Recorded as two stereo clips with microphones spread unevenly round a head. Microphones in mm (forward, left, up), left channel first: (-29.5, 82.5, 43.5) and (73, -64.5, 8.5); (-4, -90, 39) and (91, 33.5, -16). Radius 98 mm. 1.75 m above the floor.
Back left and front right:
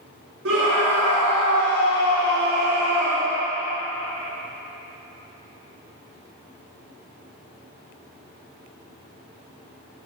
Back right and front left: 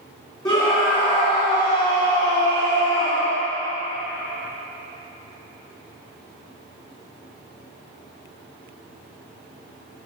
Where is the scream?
60° right, 5 m.